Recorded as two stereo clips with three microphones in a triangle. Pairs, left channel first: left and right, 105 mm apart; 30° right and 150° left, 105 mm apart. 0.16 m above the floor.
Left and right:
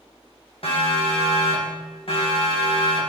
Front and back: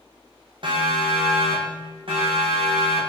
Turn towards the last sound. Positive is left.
turn(degrees=120)